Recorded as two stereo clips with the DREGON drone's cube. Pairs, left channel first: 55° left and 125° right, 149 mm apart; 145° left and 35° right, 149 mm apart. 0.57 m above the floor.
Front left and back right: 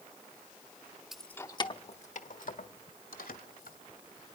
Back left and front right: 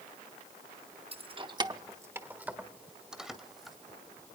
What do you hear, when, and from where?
1.1 s keys jangling: 40° right, 0.7 m; by 3.8 s 55° left, 2.5 m